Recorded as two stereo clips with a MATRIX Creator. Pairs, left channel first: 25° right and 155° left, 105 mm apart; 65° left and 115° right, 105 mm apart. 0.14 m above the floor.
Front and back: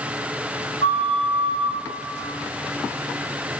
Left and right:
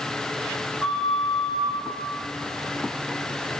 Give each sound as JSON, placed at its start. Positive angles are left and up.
{"t": 0.8, "sound": "a flute", "azimuth_deg": -25, "distance_m": 5.0}